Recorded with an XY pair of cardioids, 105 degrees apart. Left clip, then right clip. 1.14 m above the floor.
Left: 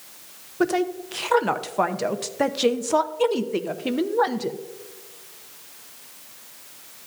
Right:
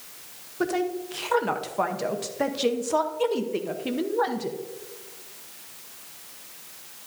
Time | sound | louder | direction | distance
0.6 | a woman speaking | left 4 dB | 30° left | 0.8 m